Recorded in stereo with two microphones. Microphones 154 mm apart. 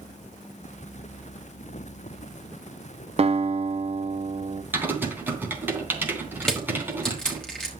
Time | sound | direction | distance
3.2 | a guitar | 45° right (ahead or behind) | 0.8 m
4.7 | typing on a keyboard | 15° right (ahead or behind) | 3 m
6.4 | crushing | 5° left (ahead or behind) | 5 m